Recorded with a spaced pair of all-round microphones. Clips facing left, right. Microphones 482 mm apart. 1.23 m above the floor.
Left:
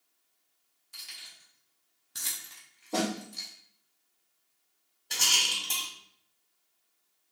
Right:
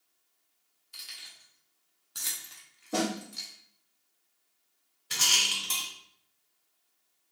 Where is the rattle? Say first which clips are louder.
Even; 25° right (ahead or behind), 1.3 m.